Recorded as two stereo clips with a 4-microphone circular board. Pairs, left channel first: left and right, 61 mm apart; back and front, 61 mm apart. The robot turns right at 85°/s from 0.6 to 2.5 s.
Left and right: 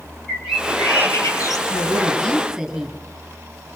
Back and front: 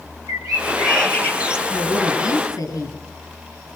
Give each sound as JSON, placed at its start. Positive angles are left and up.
{"t": 0.3, "sound": "a bird", "azimuth_deg": -5, "distance_m": 3.0}
{"t": 1.7, "sound": "a woman speaking", "azimuth_deg": 115, "distance_m": 6.0}